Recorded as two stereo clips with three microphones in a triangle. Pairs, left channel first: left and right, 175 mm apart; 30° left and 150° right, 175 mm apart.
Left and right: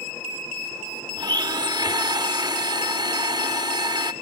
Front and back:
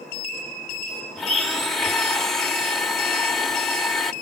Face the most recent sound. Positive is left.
turn(degrees=-55)